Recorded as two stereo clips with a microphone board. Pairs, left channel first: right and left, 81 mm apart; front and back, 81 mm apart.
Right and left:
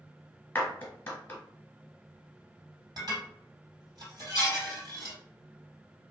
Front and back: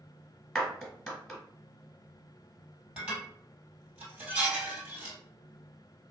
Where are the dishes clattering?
110° left, 1.8 m.